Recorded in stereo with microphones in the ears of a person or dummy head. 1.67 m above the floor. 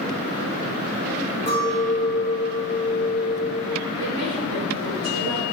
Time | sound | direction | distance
1.5 | a clink | 35° left (ahead or behind) | 1.6 m
4.0 | a woman speaking | 50° right (ahead or behind) | 2.5 m